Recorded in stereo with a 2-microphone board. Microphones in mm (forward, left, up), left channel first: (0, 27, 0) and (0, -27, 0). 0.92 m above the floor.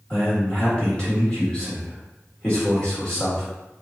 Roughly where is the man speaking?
Centre.